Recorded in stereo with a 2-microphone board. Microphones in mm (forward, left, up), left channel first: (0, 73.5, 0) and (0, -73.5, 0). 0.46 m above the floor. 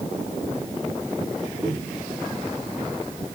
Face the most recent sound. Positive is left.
turn(degrees=-15)  # may be behind; listen again after turning